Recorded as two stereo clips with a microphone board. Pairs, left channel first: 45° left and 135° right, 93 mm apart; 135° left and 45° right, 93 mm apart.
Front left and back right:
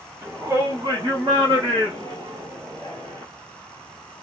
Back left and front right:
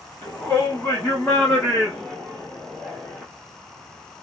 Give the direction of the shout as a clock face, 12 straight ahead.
6 o'clock.